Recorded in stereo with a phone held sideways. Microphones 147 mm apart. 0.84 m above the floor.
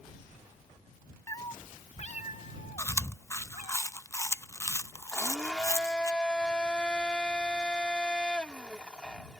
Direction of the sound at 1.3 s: 20° left (ahead or behind).